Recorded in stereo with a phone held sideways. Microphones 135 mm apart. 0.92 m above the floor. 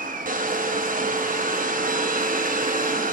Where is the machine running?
90° right, 0.7 m.